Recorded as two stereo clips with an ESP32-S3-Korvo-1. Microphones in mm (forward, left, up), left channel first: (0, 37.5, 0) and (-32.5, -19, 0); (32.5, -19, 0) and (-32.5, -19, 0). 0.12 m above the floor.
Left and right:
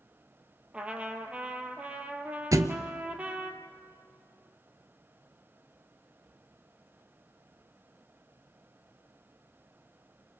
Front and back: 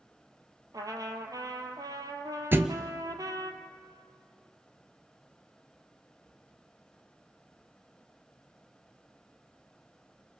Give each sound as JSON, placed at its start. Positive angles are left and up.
{"t": 0.7, "sound": "a trumpet", "azimuth_deg": 170, "distance_m": 1.7}
{"t": 2.5, "sound": "a thud", "azimuth_deg": -130, "distance_m": 0.9}